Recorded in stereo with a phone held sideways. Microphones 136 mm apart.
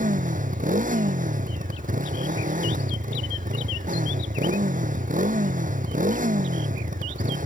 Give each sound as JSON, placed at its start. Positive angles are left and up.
{"t": 0.0, "sound": "a motorcycle", "side_deg": -80}